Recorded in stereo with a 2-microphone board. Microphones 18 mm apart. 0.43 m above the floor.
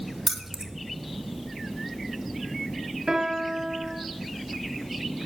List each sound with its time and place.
0.3 s keys jangling: 15° right (ahead or behind), 0.8 m
3.1 s a piano: 55° right (ahead or behind), 1.9 m